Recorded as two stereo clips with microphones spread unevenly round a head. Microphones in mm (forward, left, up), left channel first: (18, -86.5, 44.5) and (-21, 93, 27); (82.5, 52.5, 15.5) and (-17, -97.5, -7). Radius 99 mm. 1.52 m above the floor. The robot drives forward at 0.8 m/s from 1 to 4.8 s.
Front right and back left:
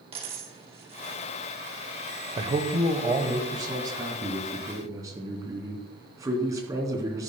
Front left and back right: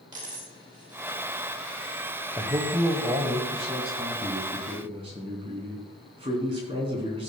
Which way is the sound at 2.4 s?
160° left.